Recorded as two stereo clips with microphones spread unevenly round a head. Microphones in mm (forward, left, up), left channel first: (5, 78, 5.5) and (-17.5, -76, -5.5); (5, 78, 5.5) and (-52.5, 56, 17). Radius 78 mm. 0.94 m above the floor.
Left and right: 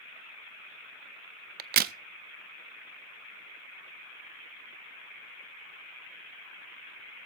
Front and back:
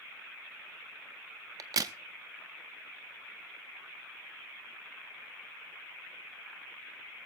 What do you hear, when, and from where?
1.6 s a crack: 130° right, 0.5 m